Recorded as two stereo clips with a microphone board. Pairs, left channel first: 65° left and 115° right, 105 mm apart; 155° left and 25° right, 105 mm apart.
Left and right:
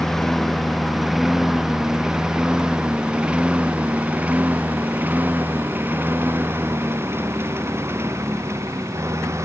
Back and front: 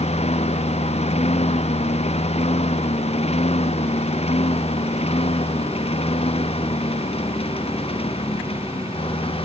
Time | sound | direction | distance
0.0 | a lawn mower | 155° left | ?